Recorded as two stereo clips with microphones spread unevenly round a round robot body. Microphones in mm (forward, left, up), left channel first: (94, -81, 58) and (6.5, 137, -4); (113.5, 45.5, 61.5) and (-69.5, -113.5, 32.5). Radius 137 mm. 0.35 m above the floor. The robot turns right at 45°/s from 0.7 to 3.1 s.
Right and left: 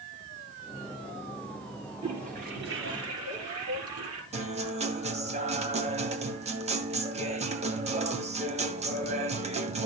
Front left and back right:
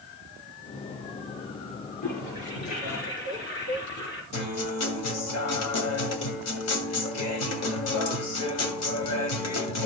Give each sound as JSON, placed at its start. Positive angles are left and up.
{"t": 2.0, "sound": "a toilet flushing", "azimuth_deg": 40, "distance_m": 5.0}
{"t": 4.3, "sound": "a guitar", "azimuth_deg": 60, "distance_m": 2.0}